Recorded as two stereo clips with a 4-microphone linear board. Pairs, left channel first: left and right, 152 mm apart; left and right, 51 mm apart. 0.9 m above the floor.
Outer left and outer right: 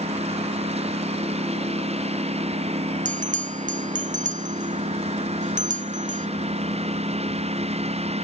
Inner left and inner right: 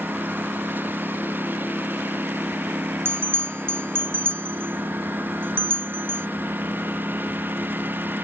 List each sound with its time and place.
0.0 s a lawn mower: 45° right (ahead or behind)
3.0 s a bell: 55° right (ahead or behind)